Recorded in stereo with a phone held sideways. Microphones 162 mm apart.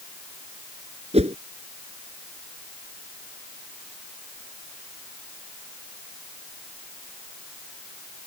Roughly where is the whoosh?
Right.